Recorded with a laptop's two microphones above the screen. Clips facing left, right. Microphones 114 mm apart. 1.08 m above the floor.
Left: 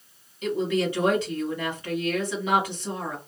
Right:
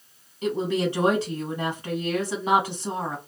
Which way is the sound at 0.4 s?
35° right (ahead or behind).